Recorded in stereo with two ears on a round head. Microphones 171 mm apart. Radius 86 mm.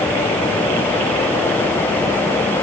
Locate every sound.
Only background noise.